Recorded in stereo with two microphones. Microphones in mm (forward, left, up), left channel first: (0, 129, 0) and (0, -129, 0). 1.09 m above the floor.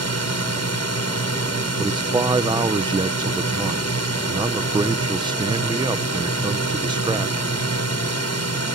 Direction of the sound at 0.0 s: 70° left (ahead or behind).